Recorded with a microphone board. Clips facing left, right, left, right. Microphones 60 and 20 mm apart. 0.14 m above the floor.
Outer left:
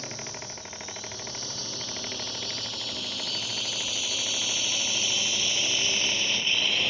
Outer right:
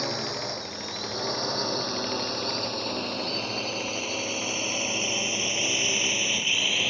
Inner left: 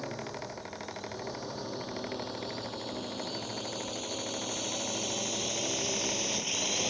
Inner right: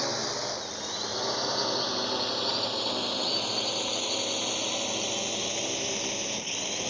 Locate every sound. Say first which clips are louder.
0.0 s a drone: outer right 8 dB, inner right 8 dB; 65° right (ahead or behind); by 6.9 s 5° right (ahead or behind)